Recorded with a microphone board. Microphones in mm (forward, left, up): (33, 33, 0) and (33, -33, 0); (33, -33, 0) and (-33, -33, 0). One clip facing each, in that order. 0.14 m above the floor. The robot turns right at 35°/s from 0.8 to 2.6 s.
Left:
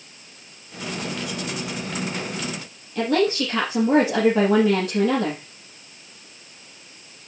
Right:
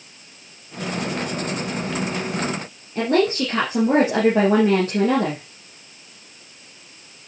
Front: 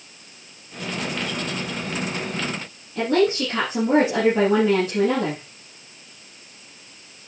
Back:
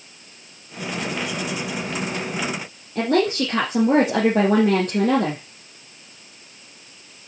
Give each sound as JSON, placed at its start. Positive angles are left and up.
{"t": 3.0, "sound": "a woman speaking", "azimuth_deg": -145, "distance_m": 3.5}